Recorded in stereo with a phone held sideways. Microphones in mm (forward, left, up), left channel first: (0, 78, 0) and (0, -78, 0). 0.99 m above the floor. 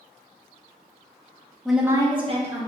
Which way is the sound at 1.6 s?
5° left (ahead or behind).